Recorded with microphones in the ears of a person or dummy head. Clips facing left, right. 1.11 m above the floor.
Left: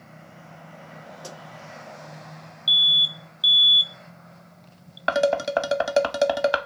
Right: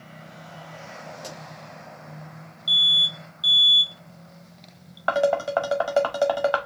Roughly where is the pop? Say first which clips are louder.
Left 1 dB; centre.